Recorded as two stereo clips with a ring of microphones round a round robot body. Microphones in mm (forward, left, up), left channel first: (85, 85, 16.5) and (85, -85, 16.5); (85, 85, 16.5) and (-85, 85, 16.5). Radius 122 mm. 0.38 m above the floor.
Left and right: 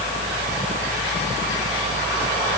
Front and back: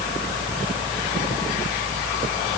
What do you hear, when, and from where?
Only background noise.